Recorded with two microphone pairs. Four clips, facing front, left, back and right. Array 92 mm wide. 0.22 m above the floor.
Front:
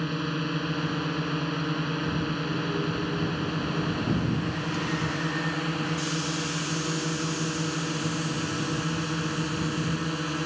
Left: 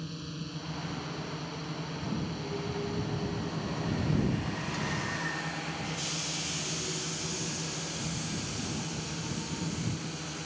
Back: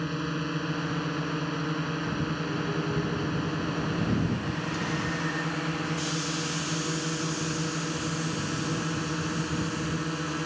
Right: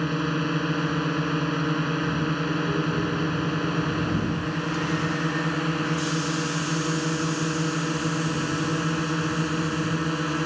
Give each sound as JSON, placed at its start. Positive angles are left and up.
{"t": 0.0, "sound": "a drone", "azimuth_deg": -85}